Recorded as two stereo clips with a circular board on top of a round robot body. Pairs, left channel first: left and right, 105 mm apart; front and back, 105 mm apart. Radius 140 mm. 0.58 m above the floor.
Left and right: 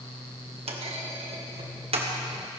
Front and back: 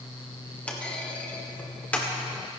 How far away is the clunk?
About 2.0 m.